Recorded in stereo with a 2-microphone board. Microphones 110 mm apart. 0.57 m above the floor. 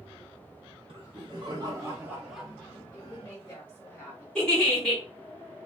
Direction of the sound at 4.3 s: 5° left (ahead or behind).